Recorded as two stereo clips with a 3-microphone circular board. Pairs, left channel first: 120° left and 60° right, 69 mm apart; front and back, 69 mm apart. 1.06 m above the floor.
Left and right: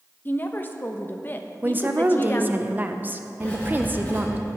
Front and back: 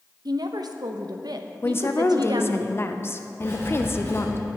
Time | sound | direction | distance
0.2 | a woman speaking | straight behind | 0.8 m
1.6 | a woman speaking | 15° right | 0.6 m
3.4 | writing | 55° left | 2.5 m